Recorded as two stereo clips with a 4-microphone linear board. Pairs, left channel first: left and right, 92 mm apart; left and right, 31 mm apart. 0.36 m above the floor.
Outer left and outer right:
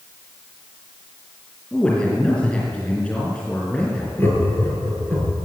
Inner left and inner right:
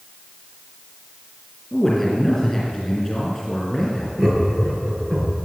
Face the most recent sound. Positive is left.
turn(degrees=20)  # may be behind; listen again after turning